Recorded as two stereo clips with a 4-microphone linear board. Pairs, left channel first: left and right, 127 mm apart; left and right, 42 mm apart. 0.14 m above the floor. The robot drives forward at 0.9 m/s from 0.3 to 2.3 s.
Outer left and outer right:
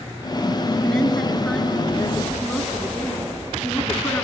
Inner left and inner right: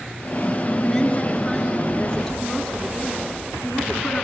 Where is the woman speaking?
5° left (ahead or behind), 2.5 m; by 4.2 s 10° left (ahead or behind), 1.6 m.